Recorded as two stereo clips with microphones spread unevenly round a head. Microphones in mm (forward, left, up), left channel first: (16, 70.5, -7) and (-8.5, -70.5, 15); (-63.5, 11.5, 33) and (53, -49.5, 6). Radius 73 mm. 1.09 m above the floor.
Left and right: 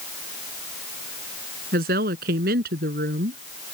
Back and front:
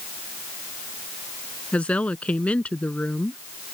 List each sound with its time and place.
1.7 s a woman speaking: 125° right